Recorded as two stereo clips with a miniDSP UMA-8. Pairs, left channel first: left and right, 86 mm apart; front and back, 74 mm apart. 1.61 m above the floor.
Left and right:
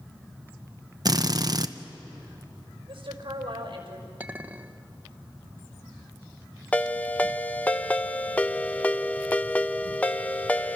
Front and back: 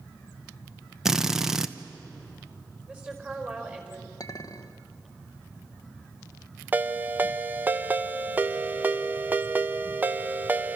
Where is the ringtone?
145° left, 0.7 m.